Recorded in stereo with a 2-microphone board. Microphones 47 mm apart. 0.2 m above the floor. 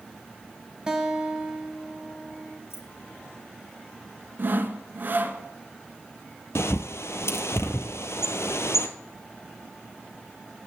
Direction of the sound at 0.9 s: 15° right (ahead or behind).